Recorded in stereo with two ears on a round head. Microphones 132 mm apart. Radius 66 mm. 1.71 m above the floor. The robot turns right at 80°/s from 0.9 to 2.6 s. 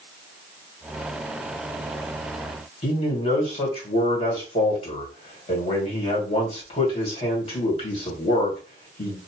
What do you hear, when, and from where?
2.8 s a man speaking: 40° left (ahead or behind), 2 m